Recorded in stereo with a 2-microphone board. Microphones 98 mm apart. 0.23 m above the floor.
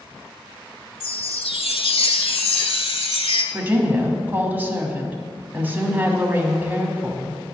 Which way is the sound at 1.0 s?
80° left.